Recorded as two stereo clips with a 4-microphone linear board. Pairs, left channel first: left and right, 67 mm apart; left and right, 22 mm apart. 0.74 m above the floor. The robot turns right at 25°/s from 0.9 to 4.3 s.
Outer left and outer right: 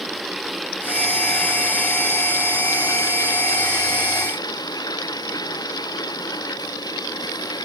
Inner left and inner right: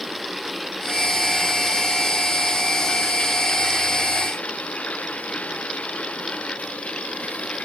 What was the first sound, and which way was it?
Running water, straight ahead.